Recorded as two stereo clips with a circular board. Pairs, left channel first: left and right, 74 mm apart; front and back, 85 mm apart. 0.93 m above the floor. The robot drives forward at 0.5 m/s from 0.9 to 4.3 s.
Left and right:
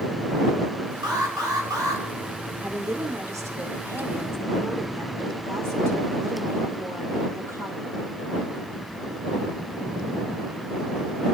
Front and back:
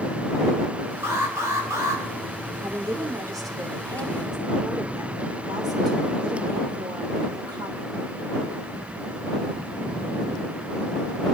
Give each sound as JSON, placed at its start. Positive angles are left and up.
{"t": 1.0, "sound": "an alarm", "azimuth_deg": -120, "distance_m": 3.5}
{"t": 2.6, "sound": "a woman speaking", "azimuth_deg": -130, "distance_m": 2.5}